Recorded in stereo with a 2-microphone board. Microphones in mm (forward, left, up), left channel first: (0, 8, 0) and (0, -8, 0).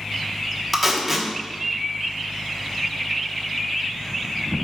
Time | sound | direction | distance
0.7 | tape being pulled | 5° right (ahead or behind) | 1.2 m